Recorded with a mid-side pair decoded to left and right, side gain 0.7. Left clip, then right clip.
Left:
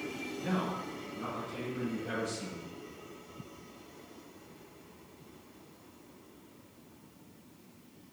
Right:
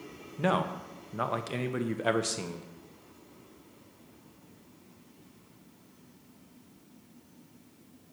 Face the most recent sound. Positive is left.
turn(degrees=-70)